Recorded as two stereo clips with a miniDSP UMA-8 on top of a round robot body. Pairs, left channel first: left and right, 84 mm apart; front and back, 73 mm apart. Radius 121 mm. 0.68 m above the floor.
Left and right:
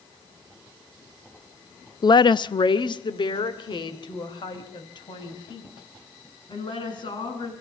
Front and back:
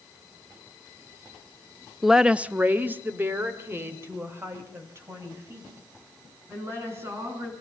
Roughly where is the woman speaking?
Left.